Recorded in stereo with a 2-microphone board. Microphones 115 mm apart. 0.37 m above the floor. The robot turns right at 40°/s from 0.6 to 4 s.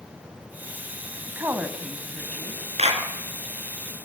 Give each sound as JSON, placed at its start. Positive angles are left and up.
{"t": 1.3, "sound": "a woman speaking", "azimuth_deg": -30, "distance_m": 2.5}
{"t": 2.8, "sound": "a clap", "side_deg": -75, "distance_m": 4.5}